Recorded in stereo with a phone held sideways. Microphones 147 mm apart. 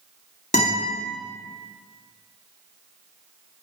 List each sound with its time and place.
0.5 s a guitar: 55° left (ahead or behind), 2 m